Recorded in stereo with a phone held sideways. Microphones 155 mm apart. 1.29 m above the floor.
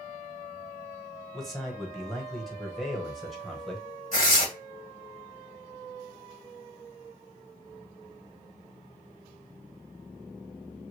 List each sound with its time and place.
1.3 s a man speaking: centre (ahead or behind), 1.2 m
4.1 s tearing paper: 50° left (ahead or behind), 2 m